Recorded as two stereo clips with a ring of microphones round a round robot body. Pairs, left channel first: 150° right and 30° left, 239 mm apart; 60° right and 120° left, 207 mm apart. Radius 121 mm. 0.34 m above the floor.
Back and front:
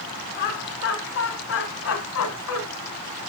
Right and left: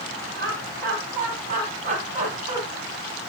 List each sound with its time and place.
0.4 s laughter: 160° left, 2.5 m; by 2.6 s 175° right, 3 m